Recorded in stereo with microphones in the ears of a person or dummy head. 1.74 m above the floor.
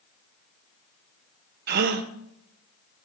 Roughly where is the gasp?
Right.